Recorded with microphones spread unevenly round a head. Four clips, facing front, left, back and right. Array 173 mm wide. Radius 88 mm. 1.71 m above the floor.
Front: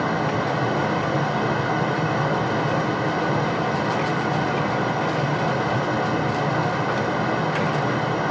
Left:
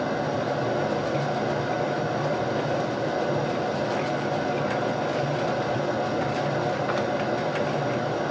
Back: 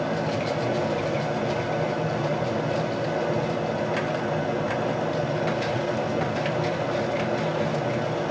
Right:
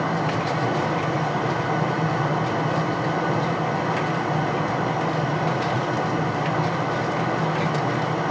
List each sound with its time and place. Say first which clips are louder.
0.0 s a fan: right 2 dB, front 3 dB; 35° right, 1.2 m